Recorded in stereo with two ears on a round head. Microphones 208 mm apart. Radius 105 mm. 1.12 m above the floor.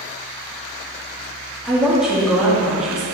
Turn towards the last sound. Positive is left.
turn(degrees=-5)  # may be behind; listen again after turning